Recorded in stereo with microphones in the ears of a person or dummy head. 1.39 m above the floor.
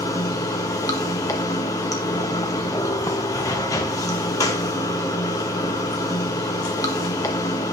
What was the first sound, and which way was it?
Running water, 20° left (ahead or behind).